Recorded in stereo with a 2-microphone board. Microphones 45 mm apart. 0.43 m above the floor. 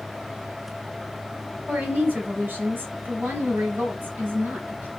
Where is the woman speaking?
50° right (ahead or behind), 2.5 m.